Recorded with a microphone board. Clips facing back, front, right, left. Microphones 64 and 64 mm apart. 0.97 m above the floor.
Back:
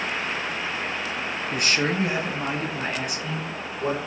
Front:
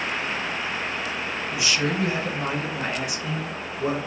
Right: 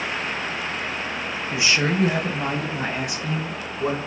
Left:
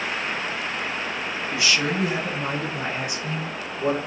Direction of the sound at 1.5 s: 160° right.